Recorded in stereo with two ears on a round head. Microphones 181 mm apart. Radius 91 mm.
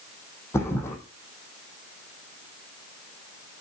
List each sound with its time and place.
0.5 s a thud: 15° left (ahead or behind), 4.5 m